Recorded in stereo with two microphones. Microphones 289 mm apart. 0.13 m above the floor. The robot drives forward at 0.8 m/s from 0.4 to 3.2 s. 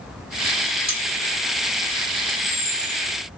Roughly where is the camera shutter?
Right.